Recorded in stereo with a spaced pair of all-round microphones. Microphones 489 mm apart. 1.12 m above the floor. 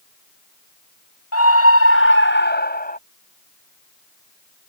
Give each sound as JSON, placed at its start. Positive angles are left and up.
{"t": 1.3, "sound": "a scream", "side_deg": 30}